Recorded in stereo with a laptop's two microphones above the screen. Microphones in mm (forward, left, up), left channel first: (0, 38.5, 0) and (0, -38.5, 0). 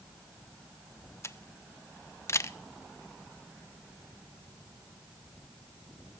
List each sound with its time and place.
1.2 s a camera shutter: 35° left (ahead or behind), 0.5 m